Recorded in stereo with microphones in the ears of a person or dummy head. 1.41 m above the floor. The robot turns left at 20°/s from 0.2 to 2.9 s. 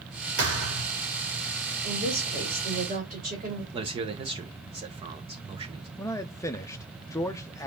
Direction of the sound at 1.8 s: 65° right (ahead or behind).